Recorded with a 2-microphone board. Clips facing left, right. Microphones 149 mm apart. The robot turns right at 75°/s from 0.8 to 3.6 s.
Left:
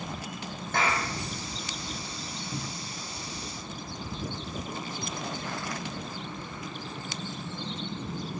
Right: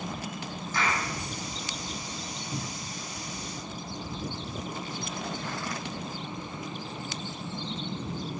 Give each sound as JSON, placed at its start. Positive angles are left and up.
{"t": 0.7, "sound": "a clap", "side_deg": 65, "distance_m": 6.0}
{"t": 2.5, "sound": "a cupboard door", "side_deg": -5, "distance_m": 0.6}